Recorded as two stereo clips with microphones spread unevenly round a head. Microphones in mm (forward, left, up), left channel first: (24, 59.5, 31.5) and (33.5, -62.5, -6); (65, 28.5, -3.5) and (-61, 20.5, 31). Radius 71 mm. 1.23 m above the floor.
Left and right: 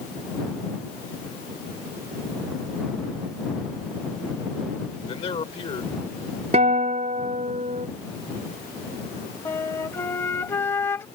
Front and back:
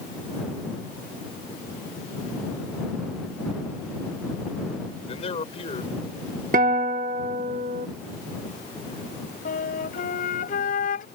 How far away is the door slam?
No door slam in this recording.